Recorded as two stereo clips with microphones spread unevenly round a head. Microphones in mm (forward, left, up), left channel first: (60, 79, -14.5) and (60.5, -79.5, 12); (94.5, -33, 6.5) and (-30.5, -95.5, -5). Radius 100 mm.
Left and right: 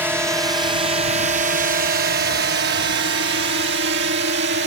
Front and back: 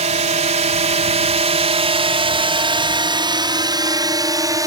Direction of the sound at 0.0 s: 175° right.